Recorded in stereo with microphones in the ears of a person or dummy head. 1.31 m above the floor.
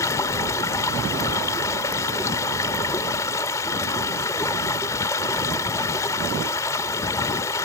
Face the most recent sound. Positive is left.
turn(degrees=15)  # may be behind; listen again after turning